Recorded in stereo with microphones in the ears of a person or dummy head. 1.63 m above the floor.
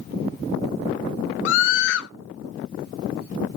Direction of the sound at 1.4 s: 70° left (ahead or behind).